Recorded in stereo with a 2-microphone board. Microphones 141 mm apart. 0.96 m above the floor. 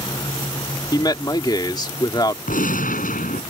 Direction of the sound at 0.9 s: 30° left (ahead or behind).